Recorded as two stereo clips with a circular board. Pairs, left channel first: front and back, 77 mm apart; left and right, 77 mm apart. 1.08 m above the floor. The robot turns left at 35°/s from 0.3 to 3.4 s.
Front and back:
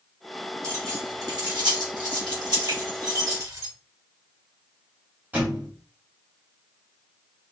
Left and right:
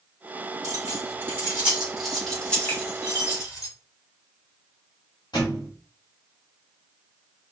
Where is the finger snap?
155° left, 2.5 m; by 2.8 s 150° left, 2.5 m.